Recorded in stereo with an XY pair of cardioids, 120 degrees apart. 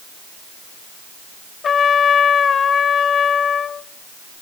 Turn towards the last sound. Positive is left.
turn(degrees=35)